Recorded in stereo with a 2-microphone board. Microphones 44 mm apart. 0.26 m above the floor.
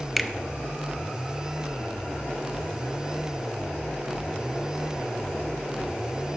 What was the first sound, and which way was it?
A finger snap, 5° right (ahead or behind).